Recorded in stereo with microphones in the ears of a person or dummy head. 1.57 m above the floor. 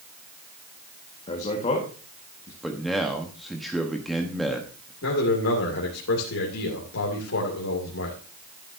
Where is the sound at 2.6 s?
Centre (ahead or behind), 1.2 m.